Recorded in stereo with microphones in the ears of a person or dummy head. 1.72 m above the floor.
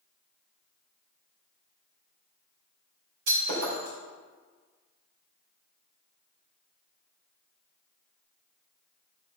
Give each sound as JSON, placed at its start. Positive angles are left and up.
{"t": 3.3, "sound": "breaking glass", "side_deg": -65, "distance_m": 4.0}